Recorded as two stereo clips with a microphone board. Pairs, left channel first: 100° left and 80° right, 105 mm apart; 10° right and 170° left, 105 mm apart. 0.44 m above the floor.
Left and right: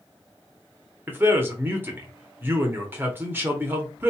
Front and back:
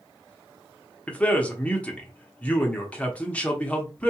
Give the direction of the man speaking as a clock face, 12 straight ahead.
2 o'clock.